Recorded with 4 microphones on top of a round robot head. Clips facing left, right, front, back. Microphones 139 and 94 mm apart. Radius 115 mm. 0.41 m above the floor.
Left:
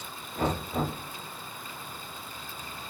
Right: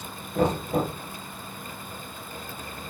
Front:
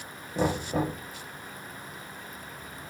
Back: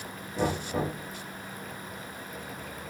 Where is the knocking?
65° right, 7 m.